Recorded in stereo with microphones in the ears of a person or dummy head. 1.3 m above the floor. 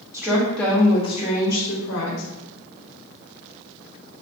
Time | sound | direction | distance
0.1 | a woman speaking | 15° right (ahead or behind) | 0.7 m